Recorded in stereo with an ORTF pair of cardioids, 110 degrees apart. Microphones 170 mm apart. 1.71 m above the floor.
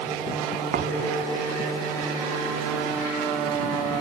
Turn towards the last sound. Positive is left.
turn(degrees=-60)